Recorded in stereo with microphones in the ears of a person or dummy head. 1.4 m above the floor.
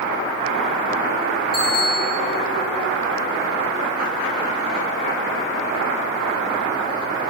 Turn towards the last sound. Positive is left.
turn(degrees=-15)  # may be behind; listen again after turning